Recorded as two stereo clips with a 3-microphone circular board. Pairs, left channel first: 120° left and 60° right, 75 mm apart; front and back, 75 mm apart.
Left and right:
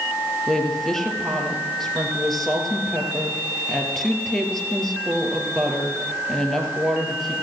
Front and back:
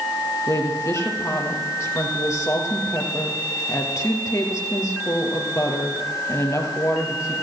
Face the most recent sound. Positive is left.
turn(degrees=35)